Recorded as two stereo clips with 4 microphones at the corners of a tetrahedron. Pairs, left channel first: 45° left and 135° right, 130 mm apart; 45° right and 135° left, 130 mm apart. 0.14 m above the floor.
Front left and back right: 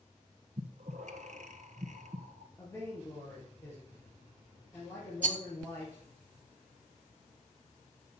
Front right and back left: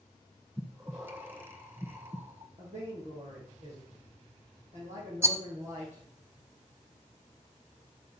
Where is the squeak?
I don't hear a squeak.